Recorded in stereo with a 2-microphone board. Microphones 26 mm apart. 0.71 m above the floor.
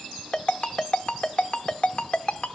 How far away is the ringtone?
About 0.8 m.